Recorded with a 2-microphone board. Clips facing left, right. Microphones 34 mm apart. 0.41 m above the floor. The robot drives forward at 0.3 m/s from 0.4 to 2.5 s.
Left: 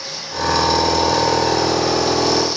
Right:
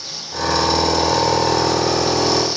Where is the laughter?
No laughter in this recording.